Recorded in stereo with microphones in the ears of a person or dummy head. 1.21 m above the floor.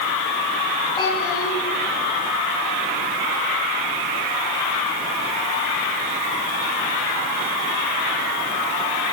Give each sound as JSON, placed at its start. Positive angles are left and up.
{"t": 1.0, "sound": "a child speaking", "side_deg": 25, "distance_m": 5.5}